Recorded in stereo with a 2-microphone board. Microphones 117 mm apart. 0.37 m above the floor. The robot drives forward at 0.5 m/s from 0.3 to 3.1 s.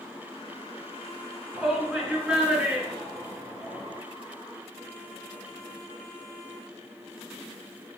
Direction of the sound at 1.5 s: 5° right (ahead or behind).